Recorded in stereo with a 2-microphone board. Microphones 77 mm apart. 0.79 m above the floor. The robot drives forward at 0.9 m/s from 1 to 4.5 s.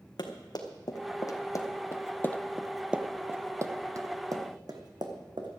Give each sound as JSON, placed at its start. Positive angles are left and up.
{"t": 0.2, "sound": "running footsteps", "side_deg": 65, "distance_m": 2.5}